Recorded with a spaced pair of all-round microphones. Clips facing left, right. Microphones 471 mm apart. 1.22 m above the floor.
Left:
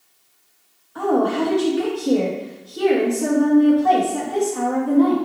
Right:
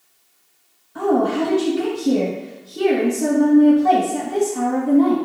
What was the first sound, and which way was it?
A woman speaking, 45° right (ahead or behind).